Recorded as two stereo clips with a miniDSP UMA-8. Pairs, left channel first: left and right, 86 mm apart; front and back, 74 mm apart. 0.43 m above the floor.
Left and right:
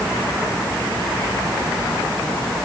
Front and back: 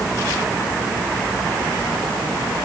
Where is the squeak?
I don't hear a squeak.